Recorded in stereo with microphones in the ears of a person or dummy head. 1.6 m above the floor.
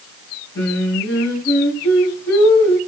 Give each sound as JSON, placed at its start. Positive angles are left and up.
{"t": 0.6, "sound": "singing", "side_deg": 60, "distance_m": 4.5}